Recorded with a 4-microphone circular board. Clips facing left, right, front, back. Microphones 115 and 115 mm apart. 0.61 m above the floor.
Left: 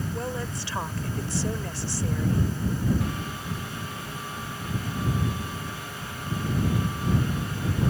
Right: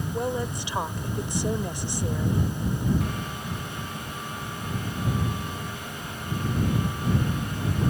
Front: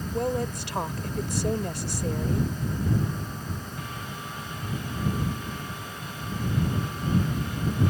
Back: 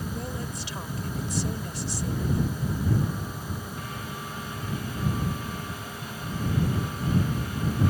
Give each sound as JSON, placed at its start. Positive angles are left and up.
{"t": 0.1, "sound": "a woman speaking", "azimuth_deg": -20}